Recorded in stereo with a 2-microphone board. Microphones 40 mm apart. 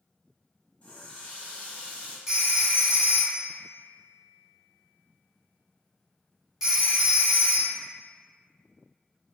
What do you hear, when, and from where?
0.8 s a running tap: 35° left (ahead or behind), 0.9 m
2.3 s a phone ringing: 15° right (ahead or behind), 1.1 m